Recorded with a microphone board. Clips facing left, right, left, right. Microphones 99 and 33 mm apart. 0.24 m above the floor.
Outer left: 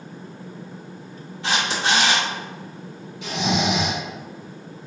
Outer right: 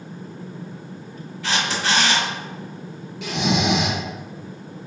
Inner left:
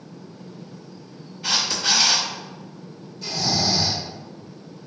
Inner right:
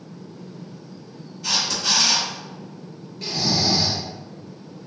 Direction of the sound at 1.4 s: 25° left (ahead or behind).